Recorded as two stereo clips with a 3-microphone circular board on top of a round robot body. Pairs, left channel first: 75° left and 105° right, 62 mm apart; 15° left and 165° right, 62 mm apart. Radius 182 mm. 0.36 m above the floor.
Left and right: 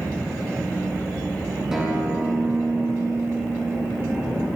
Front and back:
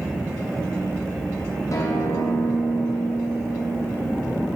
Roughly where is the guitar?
Ahead.